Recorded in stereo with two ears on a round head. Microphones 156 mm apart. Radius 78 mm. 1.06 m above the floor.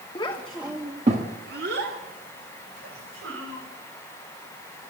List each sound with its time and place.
0.1 s a child speaking: 25° left (ahead or behind), 1.4 m; by 3.6 s 80° right, 5 m